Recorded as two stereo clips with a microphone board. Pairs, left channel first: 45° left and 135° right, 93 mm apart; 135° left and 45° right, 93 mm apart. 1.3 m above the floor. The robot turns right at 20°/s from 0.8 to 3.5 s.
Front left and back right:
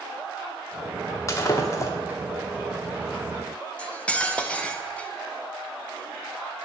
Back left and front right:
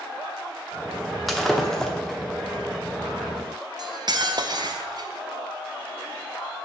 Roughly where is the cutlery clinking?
Ahead right.